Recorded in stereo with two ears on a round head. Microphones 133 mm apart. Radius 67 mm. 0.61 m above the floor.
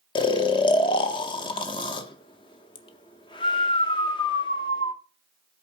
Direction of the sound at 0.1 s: 30° left (ahead or behind).